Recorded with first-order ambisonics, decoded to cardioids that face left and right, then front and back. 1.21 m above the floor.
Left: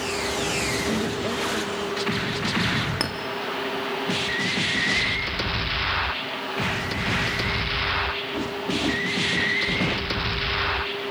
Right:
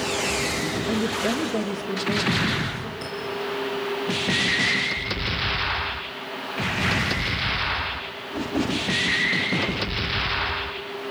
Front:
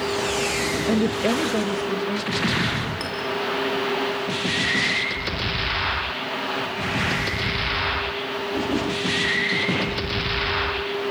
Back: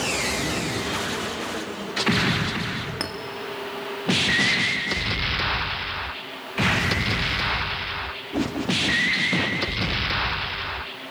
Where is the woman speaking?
5° left, 1.0 m; by 2.9 s 45° right, 3.5 m.